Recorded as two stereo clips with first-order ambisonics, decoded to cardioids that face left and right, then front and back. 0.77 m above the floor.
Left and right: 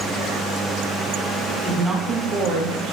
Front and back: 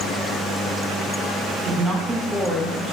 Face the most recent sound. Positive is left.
turn(degrees=-80)